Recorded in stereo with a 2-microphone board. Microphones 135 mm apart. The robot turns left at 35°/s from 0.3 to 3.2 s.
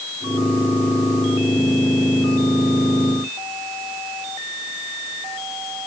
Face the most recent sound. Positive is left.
No sound to turn to.